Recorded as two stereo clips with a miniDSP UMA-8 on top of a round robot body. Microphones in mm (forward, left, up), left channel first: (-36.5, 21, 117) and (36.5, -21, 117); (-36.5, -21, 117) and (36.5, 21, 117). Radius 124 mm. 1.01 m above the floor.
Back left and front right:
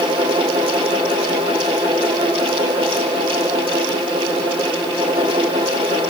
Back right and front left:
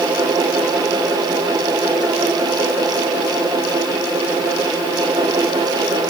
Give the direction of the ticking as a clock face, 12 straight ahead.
I don't hear ticking.